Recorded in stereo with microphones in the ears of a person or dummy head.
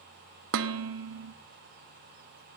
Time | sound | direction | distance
0.5 | dishes clattering | 75° right (ahead or behind) | 0.8 m